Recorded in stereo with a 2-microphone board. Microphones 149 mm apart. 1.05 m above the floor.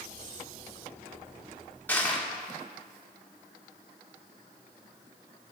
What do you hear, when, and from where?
1.9 s crushing: 10° left (ahead or behind), 1.2 m